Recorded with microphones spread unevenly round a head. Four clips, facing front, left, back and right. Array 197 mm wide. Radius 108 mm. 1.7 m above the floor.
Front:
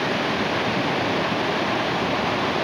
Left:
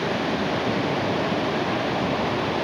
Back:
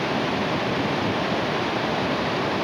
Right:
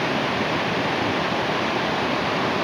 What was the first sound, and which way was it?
Only background noise.